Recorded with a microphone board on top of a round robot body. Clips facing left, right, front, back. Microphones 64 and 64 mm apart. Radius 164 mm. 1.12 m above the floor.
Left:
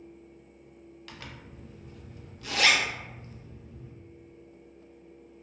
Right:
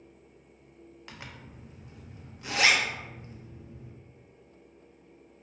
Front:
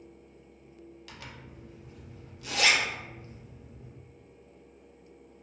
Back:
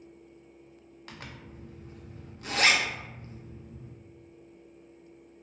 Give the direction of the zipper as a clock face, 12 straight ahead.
5 o'clock.